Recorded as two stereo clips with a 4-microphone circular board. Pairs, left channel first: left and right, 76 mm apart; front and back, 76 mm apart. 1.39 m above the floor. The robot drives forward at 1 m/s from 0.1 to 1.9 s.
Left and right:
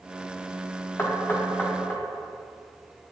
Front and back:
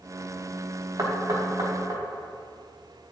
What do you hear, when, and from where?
1.0 s knocking: 145° left, 2 m; by 2.0 s 155° left, 3 m